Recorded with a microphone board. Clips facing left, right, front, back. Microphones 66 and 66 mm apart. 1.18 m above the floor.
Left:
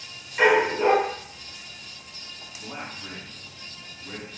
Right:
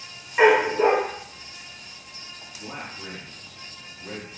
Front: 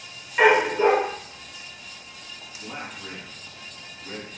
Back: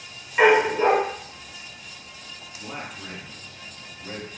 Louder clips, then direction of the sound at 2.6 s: Even, back 1 dB; 115° right.